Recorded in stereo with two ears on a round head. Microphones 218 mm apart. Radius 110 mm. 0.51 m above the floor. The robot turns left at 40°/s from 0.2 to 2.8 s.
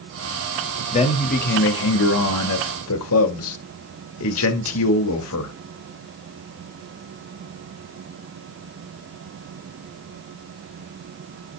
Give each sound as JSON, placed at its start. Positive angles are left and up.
{"t": 0.9, "sound": "a man speaking", "azimuth_deg": 155, "distance_m": 1.5}